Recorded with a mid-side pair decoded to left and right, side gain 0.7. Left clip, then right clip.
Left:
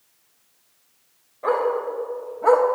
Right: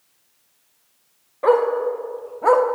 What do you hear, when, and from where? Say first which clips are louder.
1.4 s a dog barking: right 5 dB; 45° right, 2.5 m; by 2.7 s 10° right, 1.1 m